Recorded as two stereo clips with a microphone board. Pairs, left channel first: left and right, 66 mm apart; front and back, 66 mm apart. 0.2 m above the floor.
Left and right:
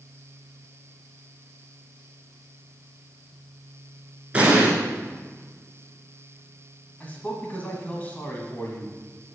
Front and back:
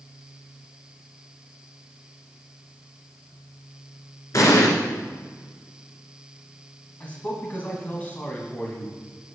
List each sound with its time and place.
4.3 s an explosion: 20° right, 1.4 m
7.0 s a man speaking: 45° left, 1.5 m